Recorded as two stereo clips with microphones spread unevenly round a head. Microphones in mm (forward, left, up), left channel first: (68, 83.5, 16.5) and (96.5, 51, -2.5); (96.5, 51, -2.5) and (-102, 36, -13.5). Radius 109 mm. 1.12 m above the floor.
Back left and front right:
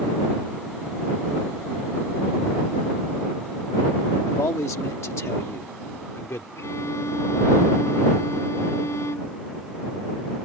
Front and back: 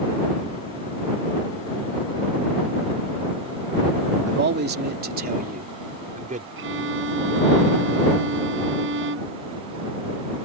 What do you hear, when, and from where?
4.3 s a man speaking: 150° left; by 6.5 s 130° left
6.6 s a violin: 160° left